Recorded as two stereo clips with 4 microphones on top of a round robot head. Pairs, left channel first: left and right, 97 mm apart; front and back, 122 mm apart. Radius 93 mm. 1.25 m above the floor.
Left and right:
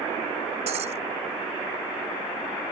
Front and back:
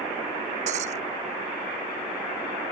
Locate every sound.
0.7 s breaking glass: 130° right